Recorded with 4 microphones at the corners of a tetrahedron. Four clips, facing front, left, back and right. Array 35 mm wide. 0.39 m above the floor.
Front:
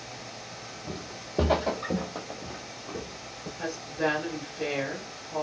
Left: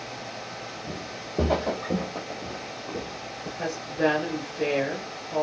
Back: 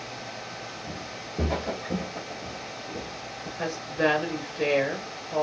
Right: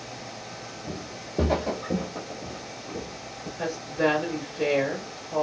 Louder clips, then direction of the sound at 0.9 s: Left 1 dB, back 2 dB; 30° right.